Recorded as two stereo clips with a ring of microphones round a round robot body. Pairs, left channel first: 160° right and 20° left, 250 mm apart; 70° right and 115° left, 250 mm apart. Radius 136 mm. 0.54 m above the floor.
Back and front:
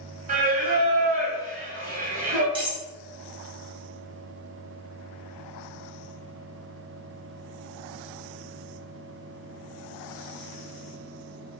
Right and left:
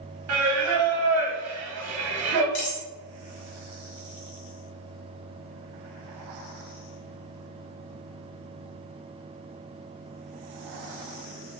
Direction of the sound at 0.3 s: 80° left.